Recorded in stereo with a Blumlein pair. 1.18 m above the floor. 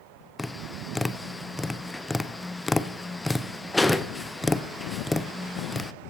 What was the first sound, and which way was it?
Tapping, 5° left.